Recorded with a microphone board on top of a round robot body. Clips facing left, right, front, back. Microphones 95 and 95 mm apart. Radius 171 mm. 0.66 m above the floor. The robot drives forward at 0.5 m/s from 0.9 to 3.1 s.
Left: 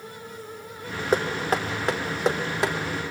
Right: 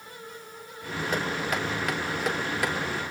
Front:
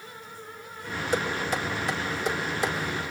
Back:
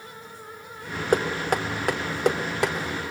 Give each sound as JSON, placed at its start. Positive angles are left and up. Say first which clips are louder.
{"t": 1.1, "sound": "knocking", "louder": "left 6 dB, back 5 dB", "azimuth_deg": 145, "distance_m": 2.0}